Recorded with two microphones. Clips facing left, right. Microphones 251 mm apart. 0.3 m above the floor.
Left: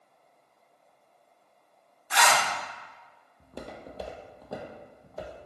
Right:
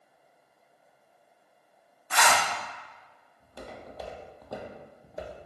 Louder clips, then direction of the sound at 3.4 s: Left 2 dB; 55° left (ahead or behind).